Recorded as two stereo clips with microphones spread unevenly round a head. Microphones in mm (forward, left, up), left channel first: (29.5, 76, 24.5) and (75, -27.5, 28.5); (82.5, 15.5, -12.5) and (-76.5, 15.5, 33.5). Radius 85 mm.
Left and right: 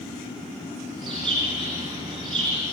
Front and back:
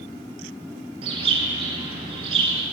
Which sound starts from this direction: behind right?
A bird, at 1.0 s.